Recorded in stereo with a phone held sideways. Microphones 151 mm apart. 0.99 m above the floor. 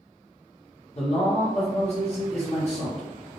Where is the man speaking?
45° left (ahead or behind), 1.3 m.